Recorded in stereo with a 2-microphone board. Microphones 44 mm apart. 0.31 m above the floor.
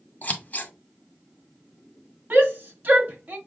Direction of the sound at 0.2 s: 35° left (ahead or behind).